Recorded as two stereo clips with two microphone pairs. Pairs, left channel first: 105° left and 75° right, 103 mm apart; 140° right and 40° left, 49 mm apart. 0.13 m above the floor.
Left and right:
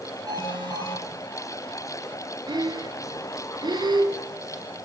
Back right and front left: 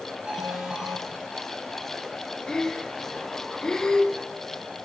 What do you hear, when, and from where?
0.3 s an alarm: 30° right, 7 m
2.5 s breathing: 70° right, 1.7 m